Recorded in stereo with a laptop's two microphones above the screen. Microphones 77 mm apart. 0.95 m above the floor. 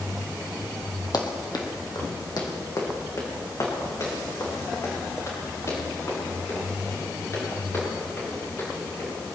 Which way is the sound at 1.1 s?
65° left (ahead or behind).